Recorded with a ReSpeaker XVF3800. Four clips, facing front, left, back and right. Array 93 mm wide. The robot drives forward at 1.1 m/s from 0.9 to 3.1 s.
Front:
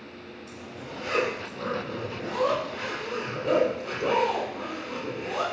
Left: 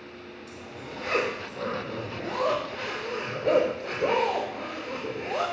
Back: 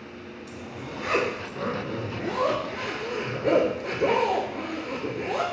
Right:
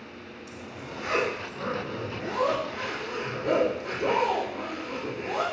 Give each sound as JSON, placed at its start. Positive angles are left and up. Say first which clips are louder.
{"t": 0.5, "sound": "a zipper", "louder": "right 1 dB, back 3 dB", "azimuth_deg": -175, "distance_m": 3.5}